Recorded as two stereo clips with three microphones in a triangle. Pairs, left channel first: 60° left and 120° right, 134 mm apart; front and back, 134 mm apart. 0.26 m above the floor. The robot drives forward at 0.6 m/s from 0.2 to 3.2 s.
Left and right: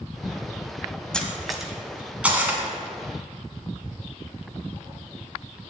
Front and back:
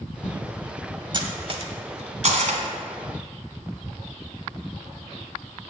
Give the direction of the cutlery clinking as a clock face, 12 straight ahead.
7 o'clock.